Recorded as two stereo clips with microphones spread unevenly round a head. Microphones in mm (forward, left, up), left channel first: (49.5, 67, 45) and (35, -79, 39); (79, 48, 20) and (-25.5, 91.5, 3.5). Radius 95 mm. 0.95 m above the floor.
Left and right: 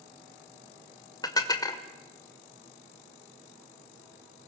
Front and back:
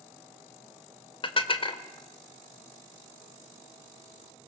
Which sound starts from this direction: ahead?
Dishes clattering, at 1.2 s.